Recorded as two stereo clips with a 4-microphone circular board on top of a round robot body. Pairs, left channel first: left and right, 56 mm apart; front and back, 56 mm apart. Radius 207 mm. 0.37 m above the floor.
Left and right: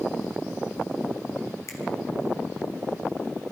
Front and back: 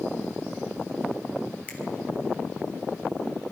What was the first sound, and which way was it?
A finger snap, 65° left.